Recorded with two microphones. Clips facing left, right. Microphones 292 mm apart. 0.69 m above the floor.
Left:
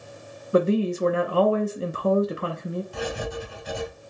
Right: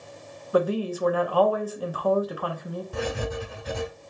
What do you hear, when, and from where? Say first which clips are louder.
0.5 s a woman speaking: left 3 dB; 30° left (ahead or behind), 0.6 m
2.9 s writing: right 1 dB; 80° right, 1.3 m